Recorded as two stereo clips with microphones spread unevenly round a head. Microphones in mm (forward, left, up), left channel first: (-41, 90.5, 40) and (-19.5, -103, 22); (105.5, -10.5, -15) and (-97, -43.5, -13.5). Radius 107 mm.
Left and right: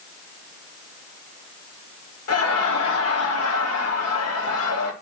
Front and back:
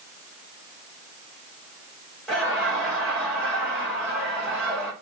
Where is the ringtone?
I don't hear a ringtone.